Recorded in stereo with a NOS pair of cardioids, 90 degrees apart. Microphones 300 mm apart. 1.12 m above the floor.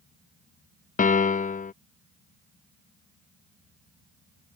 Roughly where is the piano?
Ahead left.